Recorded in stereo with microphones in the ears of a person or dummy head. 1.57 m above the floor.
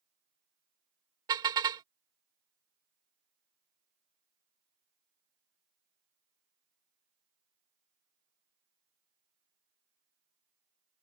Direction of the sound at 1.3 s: 20° right (ahead or behind).